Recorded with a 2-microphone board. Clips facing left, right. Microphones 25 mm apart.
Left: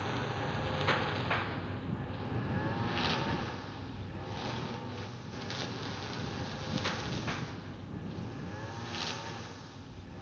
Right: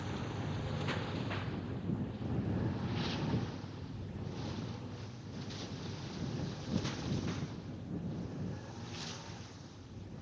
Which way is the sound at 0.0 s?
60° left (ahead or behind).